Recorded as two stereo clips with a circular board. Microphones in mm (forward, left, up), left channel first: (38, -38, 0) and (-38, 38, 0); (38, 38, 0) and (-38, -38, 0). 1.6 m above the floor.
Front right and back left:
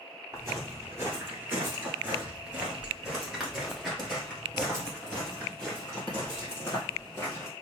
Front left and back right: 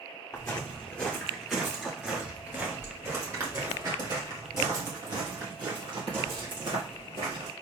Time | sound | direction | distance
0.3 | footsteps | 100° left | 1.8 m